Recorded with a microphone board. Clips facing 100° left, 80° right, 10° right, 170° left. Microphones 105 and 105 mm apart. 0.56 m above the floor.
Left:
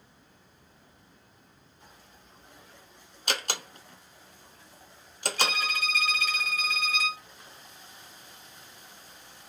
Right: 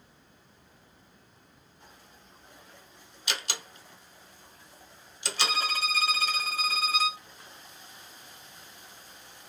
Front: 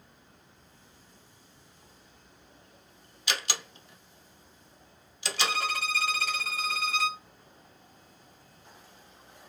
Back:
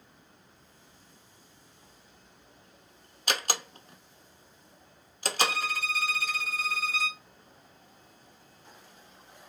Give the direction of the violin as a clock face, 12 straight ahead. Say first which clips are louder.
Right 1 dB, even; 1 o'clock.